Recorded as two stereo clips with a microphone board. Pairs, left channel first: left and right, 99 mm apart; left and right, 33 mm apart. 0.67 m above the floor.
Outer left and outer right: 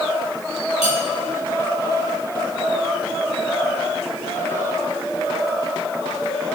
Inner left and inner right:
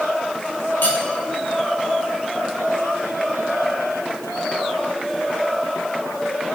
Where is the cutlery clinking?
80° left, 1.9 m.